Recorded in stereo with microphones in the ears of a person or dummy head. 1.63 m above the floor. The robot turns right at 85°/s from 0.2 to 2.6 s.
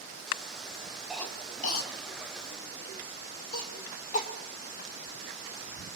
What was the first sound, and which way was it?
A cough, 5° right (ahead or behind).